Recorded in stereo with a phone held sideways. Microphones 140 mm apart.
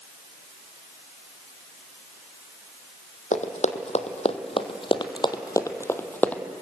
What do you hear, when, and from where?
3.3 s running footsteps: 60° left (ahead or behind), 2 m; by 6.4 s 10° left (ahead or behind), 1.7 m